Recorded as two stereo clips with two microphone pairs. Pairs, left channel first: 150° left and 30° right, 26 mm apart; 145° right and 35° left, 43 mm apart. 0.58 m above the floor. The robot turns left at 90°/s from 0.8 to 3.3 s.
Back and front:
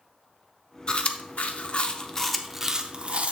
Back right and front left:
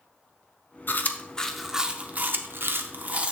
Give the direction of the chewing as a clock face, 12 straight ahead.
6 o'clock.